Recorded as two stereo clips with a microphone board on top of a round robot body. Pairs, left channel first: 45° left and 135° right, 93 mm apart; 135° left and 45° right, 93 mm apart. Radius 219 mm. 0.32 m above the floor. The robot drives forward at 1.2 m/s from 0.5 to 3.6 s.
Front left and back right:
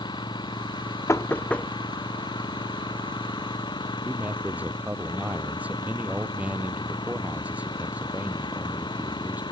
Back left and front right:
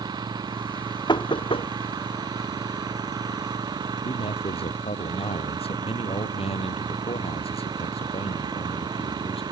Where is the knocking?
100° left; by 1.7 s 125° left.